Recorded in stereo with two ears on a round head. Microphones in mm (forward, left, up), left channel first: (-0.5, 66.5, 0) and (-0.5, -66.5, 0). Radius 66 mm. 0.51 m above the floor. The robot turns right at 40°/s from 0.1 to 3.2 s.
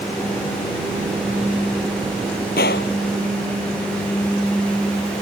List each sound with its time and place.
2.6 s a gunshot: 65° left (ahead or behind); by 2.9 s 80° left